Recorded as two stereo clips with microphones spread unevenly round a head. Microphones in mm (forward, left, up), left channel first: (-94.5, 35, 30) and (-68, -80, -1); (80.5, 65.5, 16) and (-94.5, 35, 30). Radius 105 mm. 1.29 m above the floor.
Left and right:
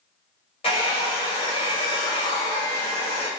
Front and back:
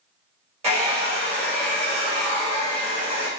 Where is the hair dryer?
135° left, 1.6 m.